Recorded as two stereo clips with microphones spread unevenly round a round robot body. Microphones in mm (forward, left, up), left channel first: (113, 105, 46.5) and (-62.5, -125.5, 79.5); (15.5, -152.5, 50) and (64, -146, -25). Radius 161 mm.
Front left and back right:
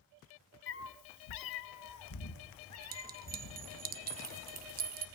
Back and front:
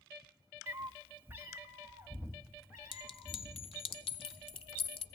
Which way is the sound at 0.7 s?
Straight ahead.